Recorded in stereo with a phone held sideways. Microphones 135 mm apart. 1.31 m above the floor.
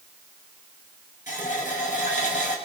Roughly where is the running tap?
Left.